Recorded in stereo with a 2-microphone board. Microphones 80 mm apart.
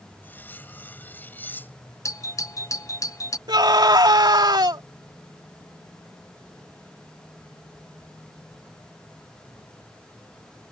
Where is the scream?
60° right (ahead or behind).